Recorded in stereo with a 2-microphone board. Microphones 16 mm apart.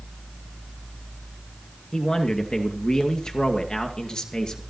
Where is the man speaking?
45° left (ahead or behind), 2.5 m; by 4.6 s 50° left (ahead or behind), 2.5 m.